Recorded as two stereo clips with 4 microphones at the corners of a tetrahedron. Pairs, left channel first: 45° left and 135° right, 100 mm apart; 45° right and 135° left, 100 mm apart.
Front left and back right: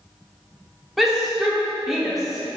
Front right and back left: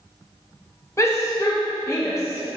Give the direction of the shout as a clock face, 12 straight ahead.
2 o'clock.